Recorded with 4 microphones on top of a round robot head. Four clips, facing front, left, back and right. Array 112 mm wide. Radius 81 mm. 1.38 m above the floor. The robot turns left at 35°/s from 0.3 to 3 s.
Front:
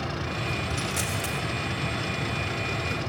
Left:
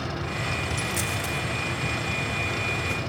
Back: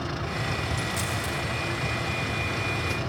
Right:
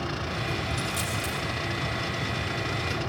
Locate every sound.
0.7 s a dropped coin: 55° left, 4 m; by 1.5 s 30° left, 4 m